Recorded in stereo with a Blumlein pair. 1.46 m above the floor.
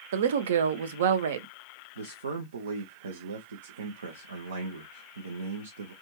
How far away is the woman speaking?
About 0.5 m.